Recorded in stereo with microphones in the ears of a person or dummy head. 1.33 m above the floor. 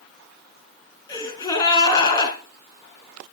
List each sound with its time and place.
1.1 s a gasp: 25° left (ahead or behind), 4.5 m